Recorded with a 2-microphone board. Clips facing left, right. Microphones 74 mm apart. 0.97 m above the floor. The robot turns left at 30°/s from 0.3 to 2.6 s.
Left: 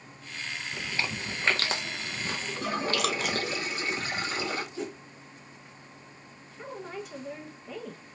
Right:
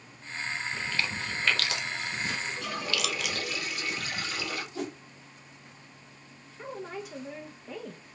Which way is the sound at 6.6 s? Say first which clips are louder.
Right 1 dB; 5° right (ahead or behind).